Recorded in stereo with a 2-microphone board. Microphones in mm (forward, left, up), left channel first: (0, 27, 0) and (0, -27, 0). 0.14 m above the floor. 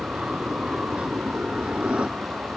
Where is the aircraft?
20° right (ahead or behind); by 2.6 s 25° right (ahead or behind).